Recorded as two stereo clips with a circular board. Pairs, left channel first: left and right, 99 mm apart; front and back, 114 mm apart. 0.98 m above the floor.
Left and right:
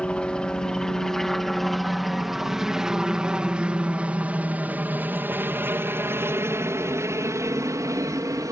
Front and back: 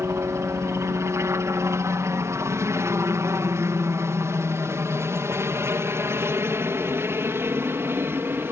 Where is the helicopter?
155° left; by 8.5 s 120° right.